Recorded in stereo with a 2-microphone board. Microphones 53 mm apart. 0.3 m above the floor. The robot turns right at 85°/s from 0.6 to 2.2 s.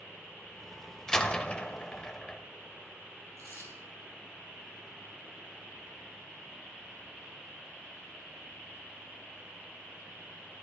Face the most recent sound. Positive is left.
turn(degrees=-75)  # may be behind; listen again after turning